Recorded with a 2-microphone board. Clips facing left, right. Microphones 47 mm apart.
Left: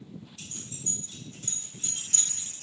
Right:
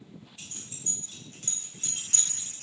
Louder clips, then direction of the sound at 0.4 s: Left 3 dB; 25° right (ahead or behind).